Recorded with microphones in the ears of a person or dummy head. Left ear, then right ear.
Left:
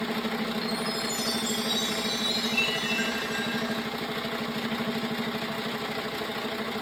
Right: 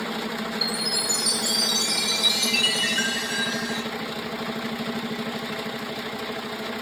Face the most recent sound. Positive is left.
turn(degrees=-45)  # may be behind; listen again after turning